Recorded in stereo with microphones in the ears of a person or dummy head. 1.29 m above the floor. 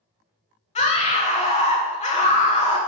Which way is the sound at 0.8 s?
30° left (ahead or behind).